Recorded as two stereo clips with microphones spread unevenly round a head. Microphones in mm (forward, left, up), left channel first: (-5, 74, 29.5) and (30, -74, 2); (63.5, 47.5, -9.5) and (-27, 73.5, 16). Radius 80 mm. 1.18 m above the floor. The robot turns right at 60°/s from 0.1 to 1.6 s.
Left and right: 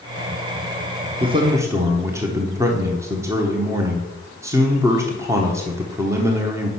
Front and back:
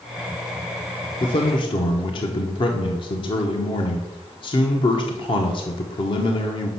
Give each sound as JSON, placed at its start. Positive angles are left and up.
{"t": 1.2, "sound": "a man speaking", "azimuth_deg": -35, "distance_m": 0.8}